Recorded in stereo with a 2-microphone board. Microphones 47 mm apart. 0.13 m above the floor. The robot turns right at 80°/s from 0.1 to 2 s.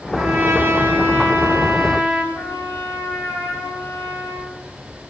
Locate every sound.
0.1 s a trumpet: 150° right, 5 m; by 2.2 s 5° right, 5 m
2.3 s a trumpet: 85° left, 7 m